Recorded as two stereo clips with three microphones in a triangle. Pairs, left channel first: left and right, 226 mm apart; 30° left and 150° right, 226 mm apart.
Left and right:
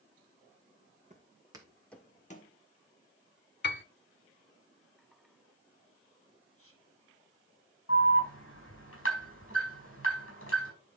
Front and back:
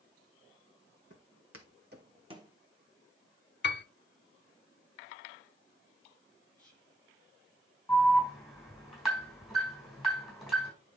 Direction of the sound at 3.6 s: 60° left.